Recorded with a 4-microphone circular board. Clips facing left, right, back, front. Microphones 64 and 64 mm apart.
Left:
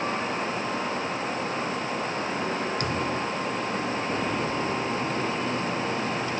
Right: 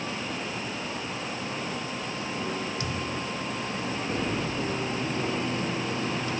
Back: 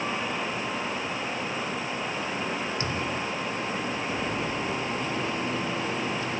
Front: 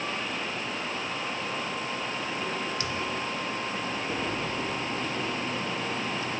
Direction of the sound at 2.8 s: 120° left.